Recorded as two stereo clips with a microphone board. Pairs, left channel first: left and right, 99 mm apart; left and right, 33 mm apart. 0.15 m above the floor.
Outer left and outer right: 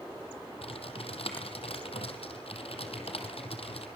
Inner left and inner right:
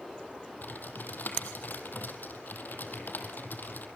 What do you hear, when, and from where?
0.6 s typing on a keyboard: 75° left (ahead or behind), 3 m